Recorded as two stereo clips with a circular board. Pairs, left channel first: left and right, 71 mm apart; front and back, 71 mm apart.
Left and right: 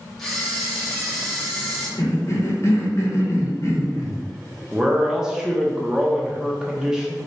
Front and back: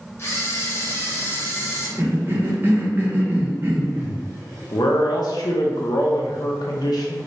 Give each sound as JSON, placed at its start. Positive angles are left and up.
{"t": 0.2, "sound": "a camera shutter", "azimuth_deg": 5, "distance_m": 1.1}
{"t": 2.0, "sound": "a cough", "azimuth_deg": 125, "distance_m": 0.8}
{"t": 4.7, "sound": "a man speaking", "azimuth_deg": -10, "distance_m": 0.7}